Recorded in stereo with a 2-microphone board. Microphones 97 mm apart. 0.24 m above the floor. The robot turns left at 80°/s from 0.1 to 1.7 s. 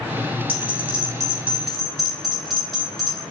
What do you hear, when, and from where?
0.5 s a bell: 70° right (ahead or behind), 1.5 m; by 3.2 s centre (ahead or behind), 1.5 m